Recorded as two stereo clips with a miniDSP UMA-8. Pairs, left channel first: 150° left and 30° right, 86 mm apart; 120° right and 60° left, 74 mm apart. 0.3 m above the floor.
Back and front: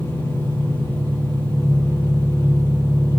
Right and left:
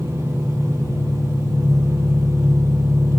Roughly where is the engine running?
Left.